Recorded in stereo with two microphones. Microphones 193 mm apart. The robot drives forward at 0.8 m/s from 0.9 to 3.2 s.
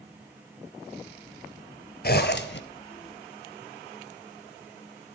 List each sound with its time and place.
2.0 s a zipper: 55° left (ahead or behind), 1.1 m; by 2.6 s 75° left (ahead or behind), 1.0 m